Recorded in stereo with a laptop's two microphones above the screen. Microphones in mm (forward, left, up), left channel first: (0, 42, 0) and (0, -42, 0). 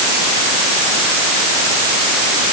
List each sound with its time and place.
Only background noise.